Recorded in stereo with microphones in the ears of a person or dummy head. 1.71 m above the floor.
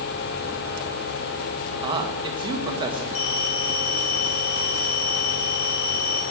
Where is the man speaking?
25° right (ahead or behind), 1.9 m.